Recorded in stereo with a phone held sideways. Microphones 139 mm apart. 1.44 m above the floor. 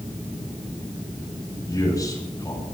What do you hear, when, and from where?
1.7 s a man speaking: 25° left (ahead or behind), 7 m